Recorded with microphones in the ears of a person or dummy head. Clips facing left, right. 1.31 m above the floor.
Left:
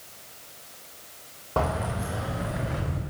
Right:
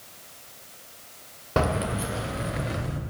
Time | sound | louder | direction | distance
1.6 | keys jangling | right 2 dB | 25° right (ahead or behind) | 0.6 m